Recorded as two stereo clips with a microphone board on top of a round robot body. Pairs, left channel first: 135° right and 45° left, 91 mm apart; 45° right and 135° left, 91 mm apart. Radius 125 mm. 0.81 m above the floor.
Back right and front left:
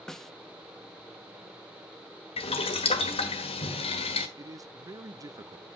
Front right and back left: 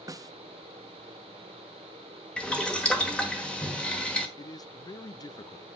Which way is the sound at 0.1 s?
145° left.